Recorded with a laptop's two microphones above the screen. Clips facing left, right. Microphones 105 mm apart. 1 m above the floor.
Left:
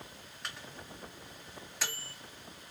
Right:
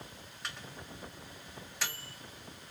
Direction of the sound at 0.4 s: Centre (ahead or behind).